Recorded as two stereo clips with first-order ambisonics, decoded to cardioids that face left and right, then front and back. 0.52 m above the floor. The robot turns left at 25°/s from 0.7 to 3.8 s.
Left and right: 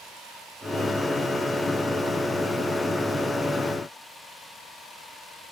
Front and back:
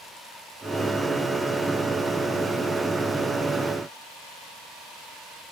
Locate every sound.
Only background noise.